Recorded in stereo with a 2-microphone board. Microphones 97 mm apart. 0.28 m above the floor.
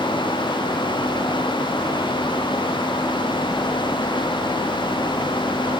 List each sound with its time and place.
Only background noise.